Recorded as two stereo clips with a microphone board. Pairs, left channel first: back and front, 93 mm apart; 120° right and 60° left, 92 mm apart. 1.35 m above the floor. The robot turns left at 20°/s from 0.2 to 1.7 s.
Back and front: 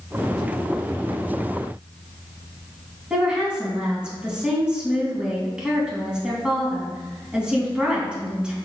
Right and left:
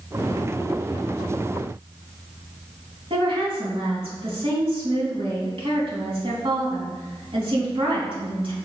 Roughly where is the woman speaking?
Left.